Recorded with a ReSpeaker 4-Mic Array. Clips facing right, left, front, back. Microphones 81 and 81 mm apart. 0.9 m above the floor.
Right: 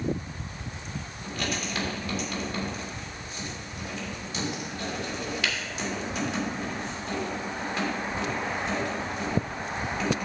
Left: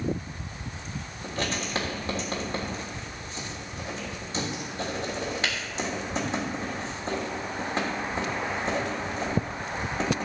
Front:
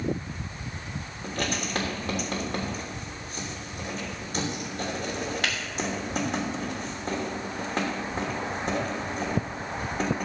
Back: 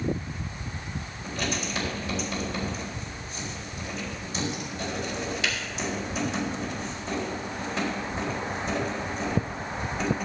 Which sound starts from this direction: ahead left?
Writing, at 1.2 s.